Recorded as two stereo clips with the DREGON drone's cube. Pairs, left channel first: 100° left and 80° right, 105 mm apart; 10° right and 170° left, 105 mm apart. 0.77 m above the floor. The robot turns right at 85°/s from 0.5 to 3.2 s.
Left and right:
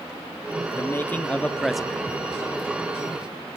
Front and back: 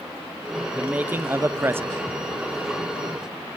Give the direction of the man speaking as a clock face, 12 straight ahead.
8 o'clock.